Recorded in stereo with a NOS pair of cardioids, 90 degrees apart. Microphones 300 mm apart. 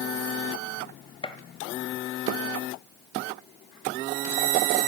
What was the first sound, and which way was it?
A gunshot, 15° left.